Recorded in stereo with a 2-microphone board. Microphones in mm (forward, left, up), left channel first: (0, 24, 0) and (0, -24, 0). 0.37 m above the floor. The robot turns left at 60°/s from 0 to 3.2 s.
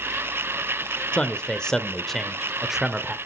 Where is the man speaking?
20° left (ahead or behind), 0.8 m; by 3.1 s 15° right (ahead or behind), 0.8 m.